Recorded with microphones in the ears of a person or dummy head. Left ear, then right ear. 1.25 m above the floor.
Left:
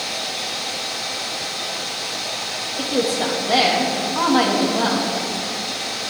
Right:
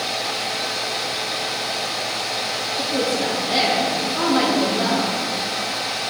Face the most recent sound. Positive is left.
turn(degrees=35)  # may be behind; listen again after turning